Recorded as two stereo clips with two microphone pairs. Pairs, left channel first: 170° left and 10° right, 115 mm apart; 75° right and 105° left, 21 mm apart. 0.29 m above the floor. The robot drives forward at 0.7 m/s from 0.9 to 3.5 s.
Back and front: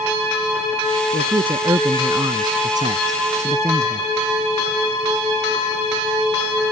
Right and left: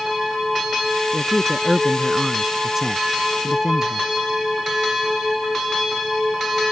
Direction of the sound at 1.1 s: 25° left.